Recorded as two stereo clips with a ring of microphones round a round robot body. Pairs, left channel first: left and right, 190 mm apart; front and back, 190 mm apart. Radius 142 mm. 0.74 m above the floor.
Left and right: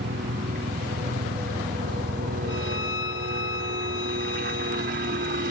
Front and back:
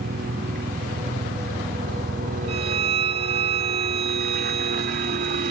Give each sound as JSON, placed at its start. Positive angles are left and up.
{"t": 0.0, "sound": "a helicopter", "azimuth_deg": -135}
{"t": 2.5, "sound": "a violin", "azimuth_deg": 120}